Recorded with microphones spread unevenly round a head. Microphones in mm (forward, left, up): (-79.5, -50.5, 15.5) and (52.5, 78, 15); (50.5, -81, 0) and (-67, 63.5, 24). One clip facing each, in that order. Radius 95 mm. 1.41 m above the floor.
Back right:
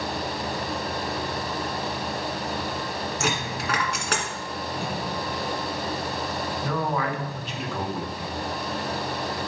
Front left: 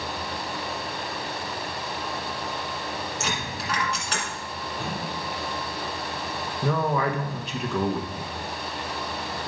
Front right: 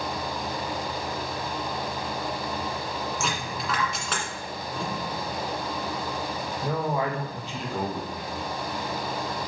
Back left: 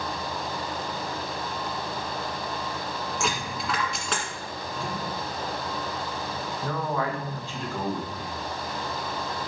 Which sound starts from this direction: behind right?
A dropped coin, at 3.2 s.